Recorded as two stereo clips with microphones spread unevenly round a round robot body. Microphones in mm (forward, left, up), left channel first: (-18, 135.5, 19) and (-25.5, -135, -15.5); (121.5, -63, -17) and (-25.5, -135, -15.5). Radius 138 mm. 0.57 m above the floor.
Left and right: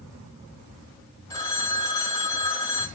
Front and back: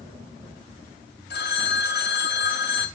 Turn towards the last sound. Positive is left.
turn(degrees=10)